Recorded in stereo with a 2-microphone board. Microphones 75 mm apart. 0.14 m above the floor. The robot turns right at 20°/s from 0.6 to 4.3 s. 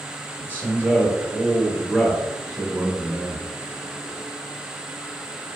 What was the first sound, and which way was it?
A man speaking, 35° right.